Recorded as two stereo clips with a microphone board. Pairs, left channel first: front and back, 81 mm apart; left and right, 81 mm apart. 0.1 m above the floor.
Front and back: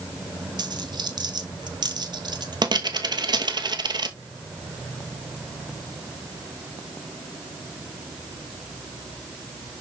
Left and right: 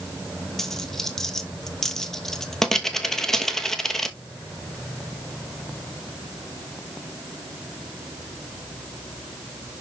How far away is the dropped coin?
About 1.0 m.